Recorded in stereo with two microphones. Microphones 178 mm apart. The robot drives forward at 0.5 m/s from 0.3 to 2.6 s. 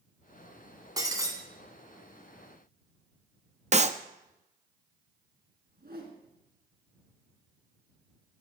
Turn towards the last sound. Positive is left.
turn(degrees=-70)  # may be behind; listen again after turning